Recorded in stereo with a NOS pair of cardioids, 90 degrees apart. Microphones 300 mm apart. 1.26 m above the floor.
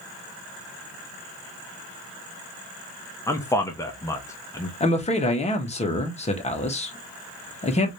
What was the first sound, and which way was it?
A man speaking, 10° left.